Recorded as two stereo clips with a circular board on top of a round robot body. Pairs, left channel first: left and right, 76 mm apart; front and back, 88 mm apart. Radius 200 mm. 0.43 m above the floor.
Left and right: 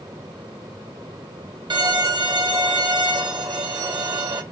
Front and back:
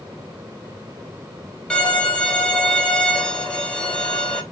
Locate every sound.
1.7 s a violin: 80° right, 1.7 m